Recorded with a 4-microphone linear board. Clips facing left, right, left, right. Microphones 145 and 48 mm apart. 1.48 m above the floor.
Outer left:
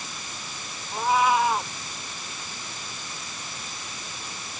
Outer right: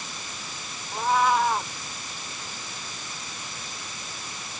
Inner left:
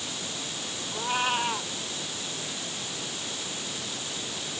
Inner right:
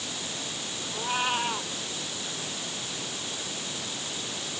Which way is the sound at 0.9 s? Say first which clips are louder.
Outer left 1 dB, inner left 1 dB; 5° left (ahead or behind).